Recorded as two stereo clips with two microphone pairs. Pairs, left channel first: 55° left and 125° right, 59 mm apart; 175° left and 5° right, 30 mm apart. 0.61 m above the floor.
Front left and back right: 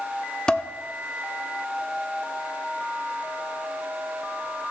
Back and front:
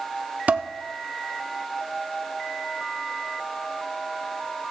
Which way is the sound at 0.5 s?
15° right.